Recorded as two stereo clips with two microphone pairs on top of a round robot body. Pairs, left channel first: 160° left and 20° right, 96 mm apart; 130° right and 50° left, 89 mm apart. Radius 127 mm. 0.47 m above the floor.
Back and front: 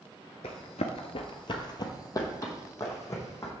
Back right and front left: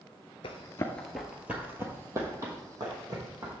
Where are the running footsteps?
165° right, 0.6 m; by 3.5 s 95° left, 2.5 m.